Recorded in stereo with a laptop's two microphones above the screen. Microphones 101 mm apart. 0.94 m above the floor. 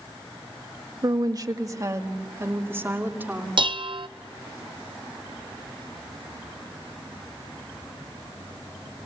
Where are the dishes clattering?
55° right (ahead or behind), 0.6 m.